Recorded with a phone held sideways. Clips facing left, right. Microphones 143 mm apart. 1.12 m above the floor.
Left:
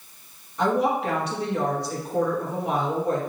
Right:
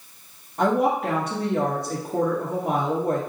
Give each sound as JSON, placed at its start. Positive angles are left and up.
{"t": 0.6, "sound": "a woman speaking", "side_deg": -50, "distance_m": 0.9}